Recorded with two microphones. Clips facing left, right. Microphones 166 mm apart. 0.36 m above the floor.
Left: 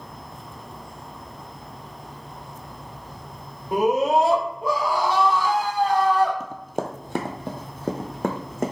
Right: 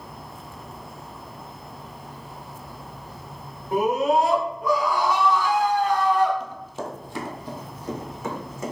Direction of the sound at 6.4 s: 50° left (ahead or behind).